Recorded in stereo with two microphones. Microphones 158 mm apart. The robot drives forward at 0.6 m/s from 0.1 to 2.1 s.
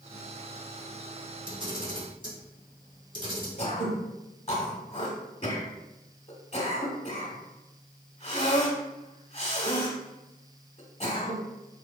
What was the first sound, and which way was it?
A camera shutter, 35° right (ahead or behind).